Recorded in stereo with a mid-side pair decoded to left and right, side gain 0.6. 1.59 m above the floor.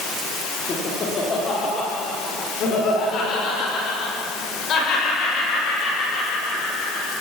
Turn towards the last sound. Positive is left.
turn(degrees=50)